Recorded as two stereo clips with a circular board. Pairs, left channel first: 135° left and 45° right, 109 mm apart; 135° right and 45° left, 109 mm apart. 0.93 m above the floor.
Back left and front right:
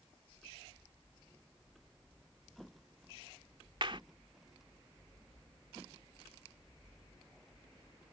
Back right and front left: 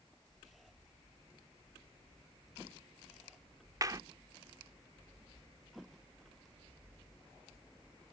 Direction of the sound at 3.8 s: 10° right.